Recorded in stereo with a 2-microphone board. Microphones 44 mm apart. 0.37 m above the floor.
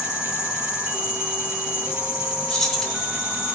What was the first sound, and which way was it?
An insect, 15° right (ahead or behind).